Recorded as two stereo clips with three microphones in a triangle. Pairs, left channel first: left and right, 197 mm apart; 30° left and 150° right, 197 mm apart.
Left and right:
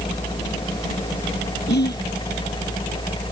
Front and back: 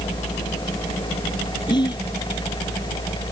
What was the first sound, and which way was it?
Whispering, 95° left.